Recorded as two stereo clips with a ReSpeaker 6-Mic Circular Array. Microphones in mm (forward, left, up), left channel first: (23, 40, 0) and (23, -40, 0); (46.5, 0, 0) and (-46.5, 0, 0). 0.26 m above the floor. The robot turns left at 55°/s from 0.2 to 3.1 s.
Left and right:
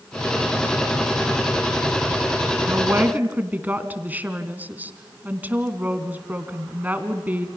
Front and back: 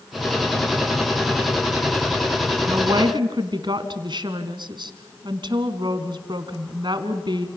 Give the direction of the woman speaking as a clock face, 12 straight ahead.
4 o'clock.